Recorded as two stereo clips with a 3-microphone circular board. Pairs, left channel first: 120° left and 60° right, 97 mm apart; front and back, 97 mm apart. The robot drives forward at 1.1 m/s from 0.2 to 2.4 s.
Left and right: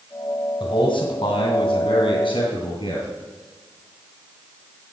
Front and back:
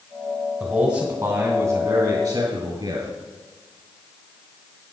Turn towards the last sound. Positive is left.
turn(degrees=145)